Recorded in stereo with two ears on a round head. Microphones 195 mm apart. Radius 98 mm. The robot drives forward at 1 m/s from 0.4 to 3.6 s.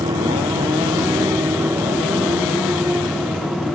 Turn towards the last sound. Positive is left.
turn(degrees=0)  # may be behind; listen again after turning